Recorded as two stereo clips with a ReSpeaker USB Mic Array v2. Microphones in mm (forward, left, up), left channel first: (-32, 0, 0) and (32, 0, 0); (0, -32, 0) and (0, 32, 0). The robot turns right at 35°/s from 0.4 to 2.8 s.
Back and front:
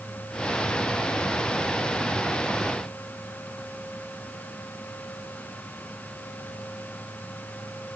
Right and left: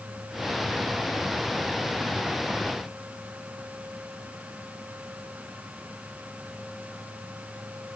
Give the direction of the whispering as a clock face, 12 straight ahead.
I don't hear whispering.